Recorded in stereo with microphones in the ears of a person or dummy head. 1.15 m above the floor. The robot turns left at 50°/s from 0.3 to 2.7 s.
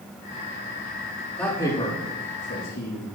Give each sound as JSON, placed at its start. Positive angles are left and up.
{"t": 1.4, "sound": "a man speaking", "side_deg": 5, "distance_m": 3.0}